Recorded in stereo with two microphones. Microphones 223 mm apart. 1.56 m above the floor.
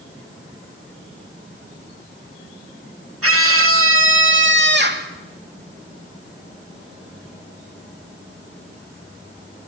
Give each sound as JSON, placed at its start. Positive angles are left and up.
{"t": 3.2, "sound": "a scream", "side_deg": -80, "distance_m": 2.5}